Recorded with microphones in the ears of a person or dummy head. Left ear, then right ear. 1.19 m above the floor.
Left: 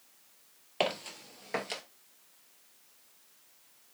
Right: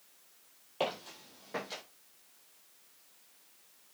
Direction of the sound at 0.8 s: 40° left (ahead or behind).